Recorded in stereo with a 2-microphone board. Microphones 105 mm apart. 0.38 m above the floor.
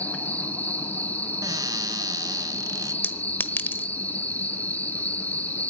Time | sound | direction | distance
0.0 | an insect | 15° left (ahead or behind) | 2.5 m
1.4 | a cupboard door | 35° right (ahead or behind) | 0.9 m
3.0 | a clink | 20° left (ahead or behind) | 1.1 m